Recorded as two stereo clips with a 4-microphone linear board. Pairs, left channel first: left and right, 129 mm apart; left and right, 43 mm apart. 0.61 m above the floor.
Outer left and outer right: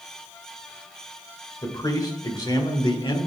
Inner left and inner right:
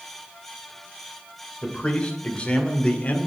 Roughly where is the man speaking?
Left.